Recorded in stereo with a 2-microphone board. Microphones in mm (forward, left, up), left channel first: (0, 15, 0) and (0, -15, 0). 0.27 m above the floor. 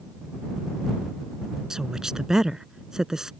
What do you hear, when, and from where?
1.7 s a woman speaking: 20° right (ahead or behind)